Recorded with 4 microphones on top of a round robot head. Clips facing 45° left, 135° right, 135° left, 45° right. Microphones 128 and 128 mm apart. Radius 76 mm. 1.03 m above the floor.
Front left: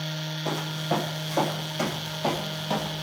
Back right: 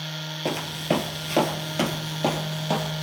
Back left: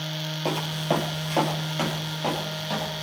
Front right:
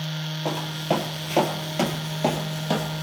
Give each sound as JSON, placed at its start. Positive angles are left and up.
{"t": 0.5, "sound": "footsteps", "azimuth_deg": -145, "distance_m": 1.6}